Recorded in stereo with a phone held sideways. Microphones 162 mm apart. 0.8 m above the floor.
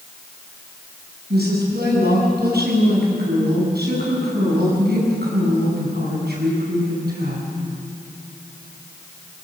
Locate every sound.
1.3 s a woman speaking: 80° right, 7.5 m